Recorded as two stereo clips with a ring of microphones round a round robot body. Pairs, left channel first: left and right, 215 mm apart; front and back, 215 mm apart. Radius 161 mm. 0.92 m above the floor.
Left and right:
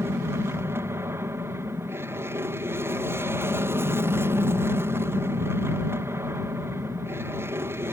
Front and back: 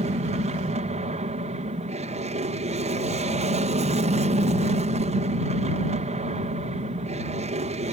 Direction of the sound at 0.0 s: 160° right.